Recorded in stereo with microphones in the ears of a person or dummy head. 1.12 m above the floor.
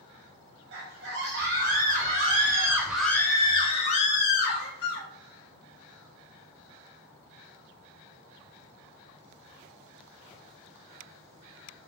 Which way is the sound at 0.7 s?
55° right (ahead or behind).